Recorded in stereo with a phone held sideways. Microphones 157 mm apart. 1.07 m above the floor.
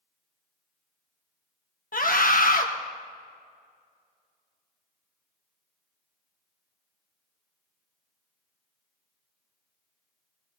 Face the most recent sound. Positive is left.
turn(degrees=60)  # may be behind; listen again after turning